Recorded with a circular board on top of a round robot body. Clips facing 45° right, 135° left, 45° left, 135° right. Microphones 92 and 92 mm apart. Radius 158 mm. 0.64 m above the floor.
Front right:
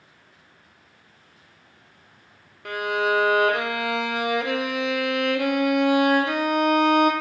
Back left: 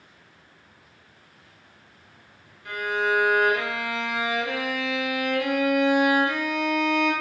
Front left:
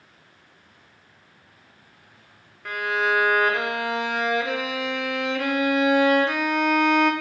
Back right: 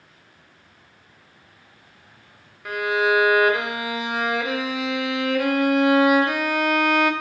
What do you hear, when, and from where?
2.6 s a violin: 50° right, 0.5 m